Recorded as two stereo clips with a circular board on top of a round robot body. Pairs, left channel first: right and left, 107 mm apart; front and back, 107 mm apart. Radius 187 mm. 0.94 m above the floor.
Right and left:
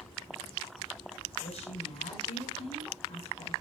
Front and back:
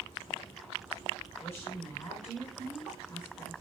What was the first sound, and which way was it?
A woman speaking, 85° right.